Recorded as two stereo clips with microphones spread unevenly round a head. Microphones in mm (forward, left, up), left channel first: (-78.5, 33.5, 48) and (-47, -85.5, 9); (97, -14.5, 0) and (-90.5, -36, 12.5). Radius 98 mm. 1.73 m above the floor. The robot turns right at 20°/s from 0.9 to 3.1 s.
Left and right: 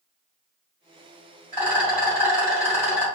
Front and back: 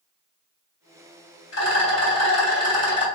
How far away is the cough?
No cough in this recording.